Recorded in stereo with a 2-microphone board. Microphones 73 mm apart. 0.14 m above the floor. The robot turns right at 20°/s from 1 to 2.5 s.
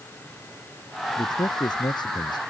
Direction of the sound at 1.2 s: 65° left (ahead or behind).